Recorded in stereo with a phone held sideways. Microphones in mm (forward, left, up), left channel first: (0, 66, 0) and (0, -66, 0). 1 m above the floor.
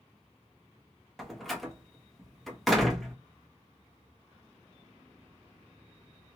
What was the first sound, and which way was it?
A door slam, centre (ahead or behind).